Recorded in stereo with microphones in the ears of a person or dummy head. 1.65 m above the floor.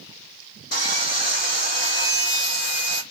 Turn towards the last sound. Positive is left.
turn(degrees=60)  # may be behind; listen again after turning